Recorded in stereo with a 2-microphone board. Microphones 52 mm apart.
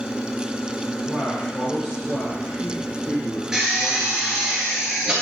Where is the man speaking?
15° left (ahead or behind), 3 m; by 4.5 s 40° left (ahead or behind), 2.5 m.